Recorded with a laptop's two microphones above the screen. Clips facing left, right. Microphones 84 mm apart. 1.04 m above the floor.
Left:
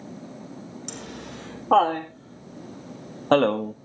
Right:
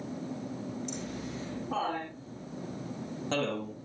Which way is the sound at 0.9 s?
70° left (ahead or behind).